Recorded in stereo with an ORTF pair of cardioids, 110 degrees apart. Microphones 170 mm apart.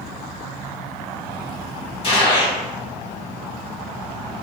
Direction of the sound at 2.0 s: 35° left.